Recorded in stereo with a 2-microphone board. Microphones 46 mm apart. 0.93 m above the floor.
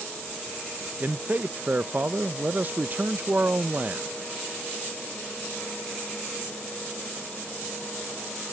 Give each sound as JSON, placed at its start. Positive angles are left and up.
{"t": 1.0, "sound": "a man speaking", "side_deg": -40}